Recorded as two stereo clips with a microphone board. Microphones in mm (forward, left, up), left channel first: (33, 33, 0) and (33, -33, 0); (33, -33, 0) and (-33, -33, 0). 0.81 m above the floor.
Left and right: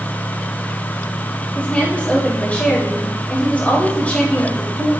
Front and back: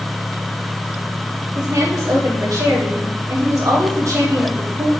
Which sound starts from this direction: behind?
A woman speaking, at 1.6 s.